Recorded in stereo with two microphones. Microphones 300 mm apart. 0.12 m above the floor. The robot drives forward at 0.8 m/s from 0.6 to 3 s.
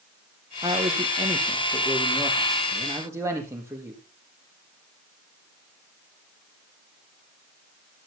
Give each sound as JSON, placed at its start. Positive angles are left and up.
{"t": 0.6, "sound": "a man speaking", "side_deg": -15, "distance_m": 2.0}